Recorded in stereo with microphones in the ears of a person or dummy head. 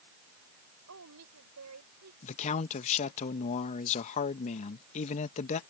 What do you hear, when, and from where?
0.9 s a woman speaking: 85° right
2.2 s a man speaking: 45° left (ahead or behind)